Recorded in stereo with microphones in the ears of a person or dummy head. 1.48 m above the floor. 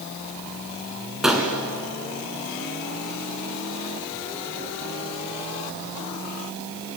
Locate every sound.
1.2 s a gunshot: centre (ahead or behind), 2.5 m